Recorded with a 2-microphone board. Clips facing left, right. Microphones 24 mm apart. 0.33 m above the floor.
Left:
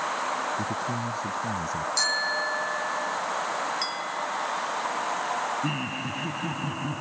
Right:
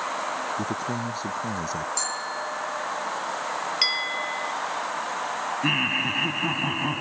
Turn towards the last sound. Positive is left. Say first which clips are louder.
# right 7 dB
turn(degrees=-40)  # may be behind; listen again after turning